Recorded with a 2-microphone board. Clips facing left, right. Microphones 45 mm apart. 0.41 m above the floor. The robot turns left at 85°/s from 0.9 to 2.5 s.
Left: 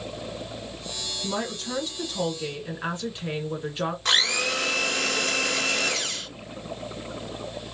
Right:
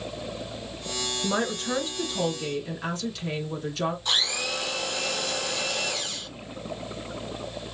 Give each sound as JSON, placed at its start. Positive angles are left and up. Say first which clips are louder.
{"t": 1.2, "sound": "a woman speaking", "louder": "right 3 dB", "azimuth_deg": -95, "distance_m": 1.6}
{"t": 4.0, "sound": "a blender", "louder": "left 4 dB", "side_deg": 80, "distance_m": 1.1}